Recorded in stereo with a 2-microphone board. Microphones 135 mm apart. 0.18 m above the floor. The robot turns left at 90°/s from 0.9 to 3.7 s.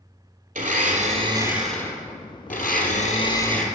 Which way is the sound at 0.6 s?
110° right.